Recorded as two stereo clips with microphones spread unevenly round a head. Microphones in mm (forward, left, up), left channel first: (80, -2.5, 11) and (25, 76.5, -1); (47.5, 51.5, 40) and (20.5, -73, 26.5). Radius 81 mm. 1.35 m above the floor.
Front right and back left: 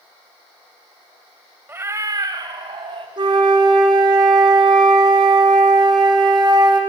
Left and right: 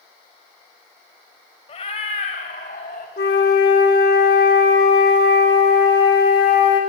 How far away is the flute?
About 2.5 m.